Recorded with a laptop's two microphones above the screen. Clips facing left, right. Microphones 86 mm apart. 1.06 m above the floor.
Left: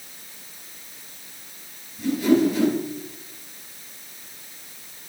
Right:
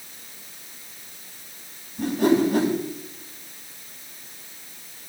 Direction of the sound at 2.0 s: 60° right (ahead or behind).